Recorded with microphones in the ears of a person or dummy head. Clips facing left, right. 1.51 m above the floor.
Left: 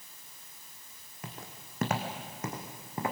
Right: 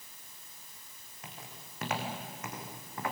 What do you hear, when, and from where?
1.2 s footsteps: 50° left (ahead or behind), 4 m; by 3.1 s 20° left (ahead or behind), 3.5 m